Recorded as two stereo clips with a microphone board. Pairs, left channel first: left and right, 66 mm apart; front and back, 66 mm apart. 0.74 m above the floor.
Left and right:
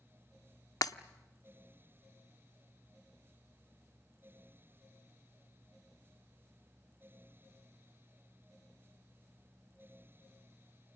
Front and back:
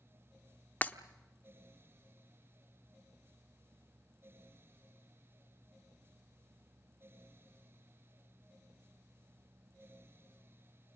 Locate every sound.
0.8 s breaking glass: 65° left, 0.8 m